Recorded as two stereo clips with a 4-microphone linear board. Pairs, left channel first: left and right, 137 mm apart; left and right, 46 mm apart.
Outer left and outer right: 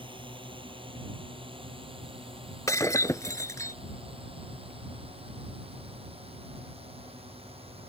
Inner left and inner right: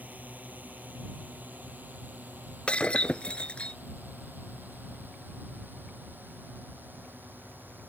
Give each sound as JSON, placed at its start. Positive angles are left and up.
{"t": 0.0, "sound": "a drone", "side_deg": -35}
{"t": 2.7, "sound": "breaking glass", "side_deg": 25}